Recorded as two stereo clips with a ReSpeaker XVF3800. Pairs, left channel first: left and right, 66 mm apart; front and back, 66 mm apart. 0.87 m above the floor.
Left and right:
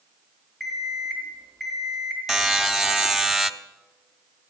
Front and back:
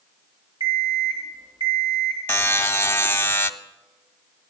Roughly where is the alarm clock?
Behind.